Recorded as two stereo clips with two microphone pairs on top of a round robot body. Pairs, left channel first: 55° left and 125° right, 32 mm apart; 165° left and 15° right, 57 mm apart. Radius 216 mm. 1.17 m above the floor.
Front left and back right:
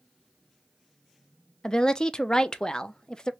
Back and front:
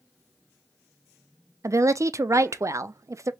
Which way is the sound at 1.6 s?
10° right.